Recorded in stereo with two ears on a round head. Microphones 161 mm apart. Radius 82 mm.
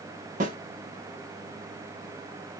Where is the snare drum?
45° right (ahead or behind), 1.2 m.